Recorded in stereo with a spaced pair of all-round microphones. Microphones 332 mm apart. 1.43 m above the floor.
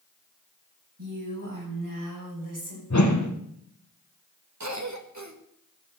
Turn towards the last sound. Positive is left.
turn(degrees=-55)  # may be behind; listen again after turning